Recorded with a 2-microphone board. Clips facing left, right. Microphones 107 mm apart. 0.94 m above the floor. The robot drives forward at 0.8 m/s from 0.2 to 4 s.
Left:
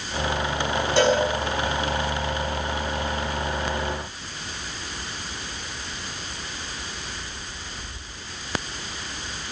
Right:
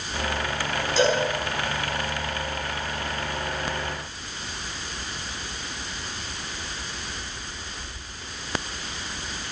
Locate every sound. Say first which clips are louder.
1.0 s a cowbell: left 2 dB; 60° left (ahead or behind), 9 m